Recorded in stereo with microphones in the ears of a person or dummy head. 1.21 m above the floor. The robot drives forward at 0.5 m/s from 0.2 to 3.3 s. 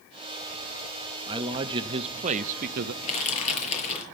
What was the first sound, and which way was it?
A man speaking, 25° right (ahead or behind).